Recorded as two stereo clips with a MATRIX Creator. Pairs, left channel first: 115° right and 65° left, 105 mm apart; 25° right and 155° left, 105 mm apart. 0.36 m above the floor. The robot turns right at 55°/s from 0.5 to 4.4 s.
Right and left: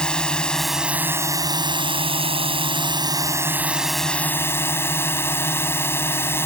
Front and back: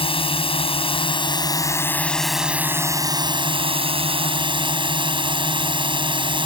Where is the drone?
30° right; by 6.5 s 175° right.